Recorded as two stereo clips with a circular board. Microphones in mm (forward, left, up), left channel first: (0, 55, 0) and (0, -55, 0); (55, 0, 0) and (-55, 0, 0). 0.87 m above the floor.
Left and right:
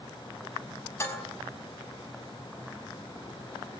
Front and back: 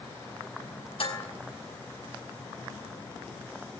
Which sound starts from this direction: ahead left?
Dishes clattering, at 1.0 s.